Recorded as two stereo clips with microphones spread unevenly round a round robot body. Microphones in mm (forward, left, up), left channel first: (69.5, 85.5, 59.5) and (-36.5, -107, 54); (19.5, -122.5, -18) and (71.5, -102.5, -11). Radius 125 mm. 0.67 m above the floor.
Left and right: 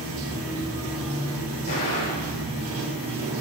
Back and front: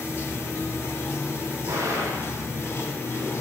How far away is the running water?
About 1.6 m.